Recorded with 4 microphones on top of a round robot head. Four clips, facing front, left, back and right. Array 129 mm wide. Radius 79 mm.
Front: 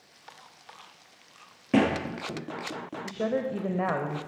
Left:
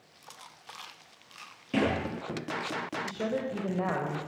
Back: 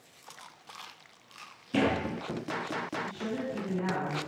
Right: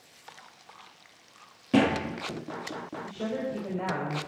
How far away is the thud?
About 10 m.